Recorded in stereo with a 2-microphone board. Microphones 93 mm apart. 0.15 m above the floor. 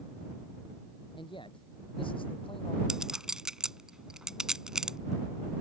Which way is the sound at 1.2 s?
65° left (ahead or behind).